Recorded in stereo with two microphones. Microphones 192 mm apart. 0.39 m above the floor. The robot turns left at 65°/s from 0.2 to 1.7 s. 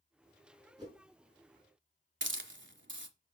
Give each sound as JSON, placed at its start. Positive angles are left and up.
{"t": 0.8, "sound": "a whoosh", "side_deg": -20, "distance_m": 4.0}
{"t": 2.2, "sound": "a hiss", "side_deg": -75, "distance_m": 1.3}